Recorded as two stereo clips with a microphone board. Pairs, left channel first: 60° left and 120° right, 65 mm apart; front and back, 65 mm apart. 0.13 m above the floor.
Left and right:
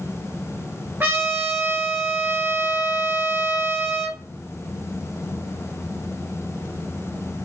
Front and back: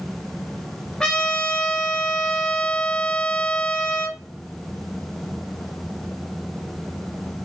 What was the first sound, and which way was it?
A trumpet, 75° right.